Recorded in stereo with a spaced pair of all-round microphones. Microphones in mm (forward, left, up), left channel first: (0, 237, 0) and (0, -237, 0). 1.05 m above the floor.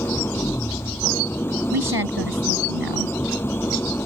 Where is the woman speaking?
50° right (ahead or behind).